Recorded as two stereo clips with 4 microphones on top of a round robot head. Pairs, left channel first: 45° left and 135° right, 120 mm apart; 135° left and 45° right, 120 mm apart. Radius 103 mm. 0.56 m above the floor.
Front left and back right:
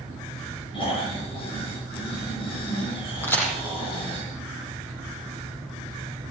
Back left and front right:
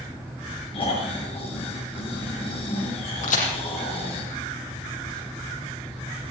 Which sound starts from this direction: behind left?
A crack, at 3.2 s.